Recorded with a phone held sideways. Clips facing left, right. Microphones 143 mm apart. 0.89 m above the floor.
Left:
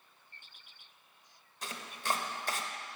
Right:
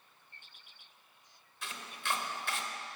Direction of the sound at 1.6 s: 40° left (ahead or behind).